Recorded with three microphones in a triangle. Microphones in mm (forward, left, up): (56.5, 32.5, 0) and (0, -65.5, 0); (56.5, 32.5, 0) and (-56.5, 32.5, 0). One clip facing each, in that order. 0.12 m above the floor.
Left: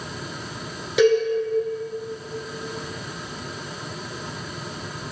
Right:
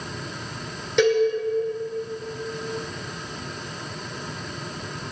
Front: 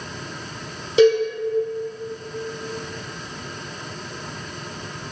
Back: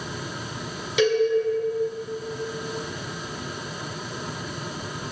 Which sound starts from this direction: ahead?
A cowbell, at 1.0 s.